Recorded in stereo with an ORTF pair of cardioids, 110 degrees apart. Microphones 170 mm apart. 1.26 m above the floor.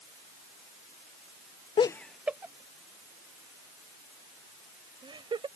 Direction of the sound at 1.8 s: 30° left.